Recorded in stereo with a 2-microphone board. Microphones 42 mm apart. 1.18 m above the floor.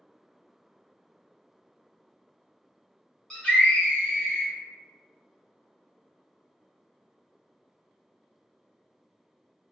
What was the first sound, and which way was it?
A scream, 15° left (ahead or behind).